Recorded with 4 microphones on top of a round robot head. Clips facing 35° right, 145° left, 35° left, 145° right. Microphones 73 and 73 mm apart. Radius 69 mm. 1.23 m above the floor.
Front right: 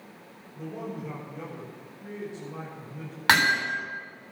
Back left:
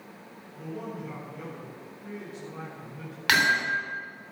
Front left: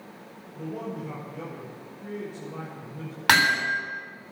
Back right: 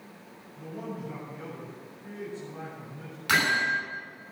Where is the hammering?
20° left, 7.5 m.